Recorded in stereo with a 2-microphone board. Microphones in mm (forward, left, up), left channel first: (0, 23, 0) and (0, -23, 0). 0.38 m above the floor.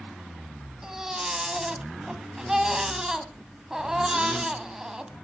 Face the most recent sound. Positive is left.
turn(degrees=-10)  # may be behind; listen again after turning